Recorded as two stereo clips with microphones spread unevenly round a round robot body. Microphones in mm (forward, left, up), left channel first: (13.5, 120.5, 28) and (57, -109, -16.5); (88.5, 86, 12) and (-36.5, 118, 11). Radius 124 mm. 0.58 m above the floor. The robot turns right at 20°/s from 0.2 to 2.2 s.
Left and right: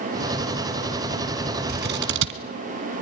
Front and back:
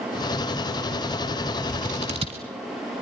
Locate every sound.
1.7 s scissors: 135° right, 1.4 m; by 2.4 s 125° right, 1.4 m